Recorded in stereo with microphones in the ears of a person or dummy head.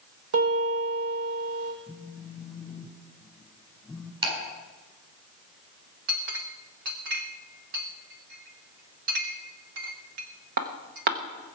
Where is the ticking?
30° right (ahead or behind), 7.5 m.